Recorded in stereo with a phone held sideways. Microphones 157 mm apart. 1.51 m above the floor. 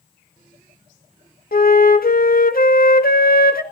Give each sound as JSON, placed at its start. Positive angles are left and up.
{"t": 1.5, "sound": "a flute", "side_deg": 70, "distance_m": 1.4}